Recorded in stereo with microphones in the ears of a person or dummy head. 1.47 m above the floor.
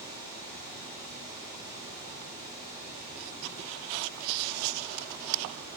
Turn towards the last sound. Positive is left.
turn(degrees=-15)  # may be behind; listen again after turning